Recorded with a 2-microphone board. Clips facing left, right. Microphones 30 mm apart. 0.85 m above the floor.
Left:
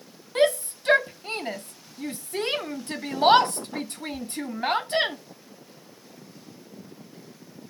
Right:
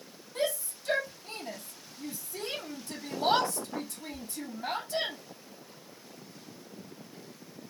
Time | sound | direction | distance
0.3 | a shout | 55° left (ahead or behind) | 0.8 m